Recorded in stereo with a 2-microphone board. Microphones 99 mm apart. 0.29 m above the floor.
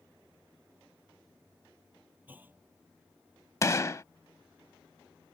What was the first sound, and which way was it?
A clunk, 20° right (ahead or behind).